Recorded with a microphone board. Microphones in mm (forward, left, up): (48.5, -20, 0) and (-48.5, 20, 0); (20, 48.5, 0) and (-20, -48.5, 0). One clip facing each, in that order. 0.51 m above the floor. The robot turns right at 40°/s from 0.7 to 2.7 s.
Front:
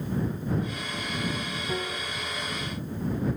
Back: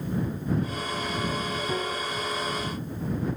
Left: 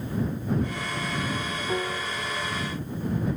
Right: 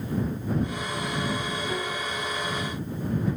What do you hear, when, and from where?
1.7 s a piano: 80° left; by 2.4 s 110° left